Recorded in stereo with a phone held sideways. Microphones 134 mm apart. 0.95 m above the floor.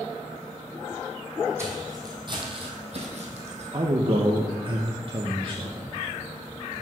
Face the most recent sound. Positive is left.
turn(degrees=-40)  # may be behind; listen again after turning